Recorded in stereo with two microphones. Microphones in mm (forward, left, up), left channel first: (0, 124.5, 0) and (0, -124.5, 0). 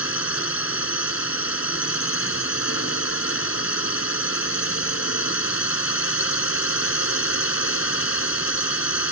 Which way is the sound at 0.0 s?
65° left (ahead or behind).